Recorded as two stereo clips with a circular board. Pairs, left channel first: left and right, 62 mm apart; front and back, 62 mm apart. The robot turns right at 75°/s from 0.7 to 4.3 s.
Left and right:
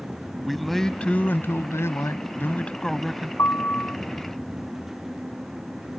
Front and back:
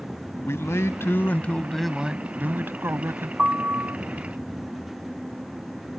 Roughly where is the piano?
Left.